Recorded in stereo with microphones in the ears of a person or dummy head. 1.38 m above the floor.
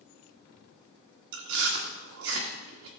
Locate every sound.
1.3 s chewing: 70° right (ahead or behind), 1.5 m